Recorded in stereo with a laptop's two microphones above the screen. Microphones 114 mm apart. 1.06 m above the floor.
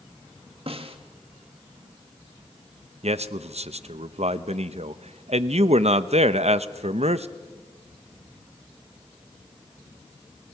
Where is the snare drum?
55° right (ahead or behind), 1.5 m.